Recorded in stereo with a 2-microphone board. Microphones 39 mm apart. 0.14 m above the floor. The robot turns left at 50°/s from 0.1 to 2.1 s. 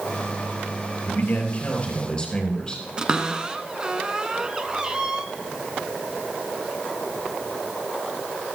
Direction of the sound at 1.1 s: 80° left.